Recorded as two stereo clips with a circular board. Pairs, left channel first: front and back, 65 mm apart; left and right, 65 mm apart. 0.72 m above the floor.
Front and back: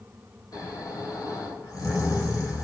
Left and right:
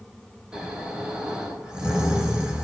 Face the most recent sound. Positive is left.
turn(degrees=-15)